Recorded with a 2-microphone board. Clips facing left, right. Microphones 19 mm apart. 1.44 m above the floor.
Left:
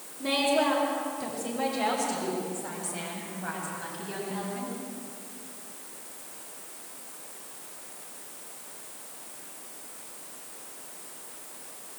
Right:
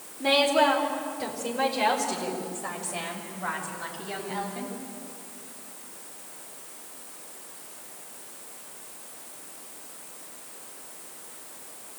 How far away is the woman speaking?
About 4 m.